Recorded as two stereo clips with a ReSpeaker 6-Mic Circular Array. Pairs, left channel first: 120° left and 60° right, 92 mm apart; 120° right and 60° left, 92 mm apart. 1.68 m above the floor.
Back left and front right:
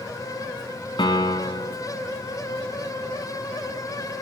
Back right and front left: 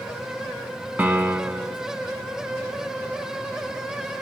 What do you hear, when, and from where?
1.0 s a piano: 120° left, 1.2 m